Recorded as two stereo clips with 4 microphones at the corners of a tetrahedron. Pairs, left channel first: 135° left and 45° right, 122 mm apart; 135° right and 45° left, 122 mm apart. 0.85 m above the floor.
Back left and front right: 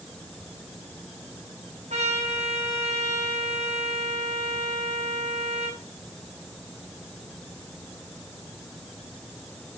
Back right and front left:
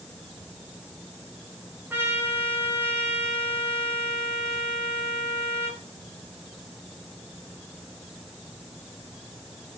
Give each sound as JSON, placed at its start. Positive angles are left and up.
{"t": 1.9, "sound": "a trumpet", "azimuth_deg": -30, "distance_m": 3.5}